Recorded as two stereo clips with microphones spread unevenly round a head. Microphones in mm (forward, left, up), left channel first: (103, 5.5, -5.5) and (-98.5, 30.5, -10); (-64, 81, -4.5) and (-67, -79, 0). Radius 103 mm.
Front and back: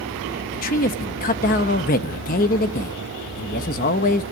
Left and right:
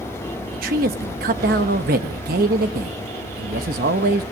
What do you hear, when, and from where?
0.5 s a man speaking: 55° right, 1.1 m